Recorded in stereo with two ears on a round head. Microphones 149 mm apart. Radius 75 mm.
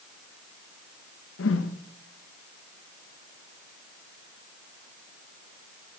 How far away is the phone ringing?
I don't hear a phone ringing.